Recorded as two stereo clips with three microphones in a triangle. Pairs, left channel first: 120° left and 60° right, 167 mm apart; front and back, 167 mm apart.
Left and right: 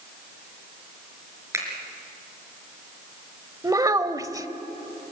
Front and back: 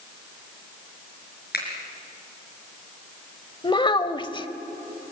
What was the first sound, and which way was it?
A finger snap, 10° left.